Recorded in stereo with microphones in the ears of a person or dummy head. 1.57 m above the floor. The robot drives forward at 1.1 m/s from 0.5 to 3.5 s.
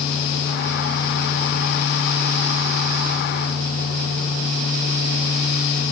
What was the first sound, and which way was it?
Only background noise.